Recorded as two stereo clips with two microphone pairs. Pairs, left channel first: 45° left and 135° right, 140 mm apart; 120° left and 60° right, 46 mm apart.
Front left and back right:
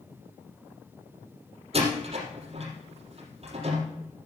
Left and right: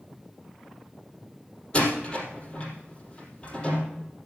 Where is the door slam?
175° right, 4 m.